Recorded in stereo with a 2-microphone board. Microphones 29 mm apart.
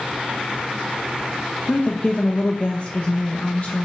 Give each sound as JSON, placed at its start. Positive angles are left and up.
{"t": 1.7, "sound": "a woman speaking", "side_deg": 55, "distance_m": 1.1}